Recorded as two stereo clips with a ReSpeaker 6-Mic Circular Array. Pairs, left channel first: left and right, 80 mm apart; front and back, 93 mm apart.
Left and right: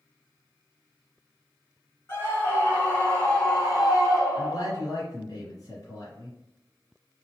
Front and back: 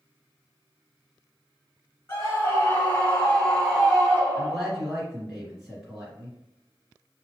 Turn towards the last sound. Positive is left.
turn(degrees=90)